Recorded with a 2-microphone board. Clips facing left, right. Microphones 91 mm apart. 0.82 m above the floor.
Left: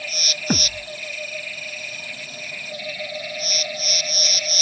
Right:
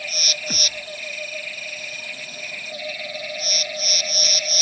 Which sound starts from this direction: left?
A thud, at 0.5 s.